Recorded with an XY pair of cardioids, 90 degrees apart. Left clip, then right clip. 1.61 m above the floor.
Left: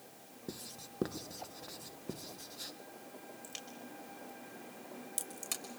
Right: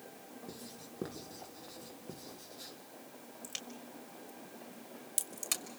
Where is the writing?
45° left, 1.8 m.